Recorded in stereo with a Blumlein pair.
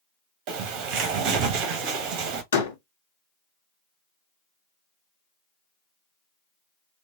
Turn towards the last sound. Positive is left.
turn(degrees=65)